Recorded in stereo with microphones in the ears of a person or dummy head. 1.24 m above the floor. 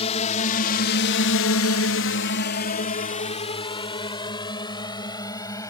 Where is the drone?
30° left (ahead or behind); by 5.7 s 15° left (ahead or behind).